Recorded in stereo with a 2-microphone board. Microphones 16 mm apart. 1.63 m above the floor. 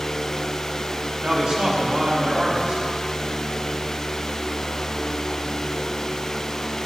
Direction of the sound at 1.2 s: 85° right.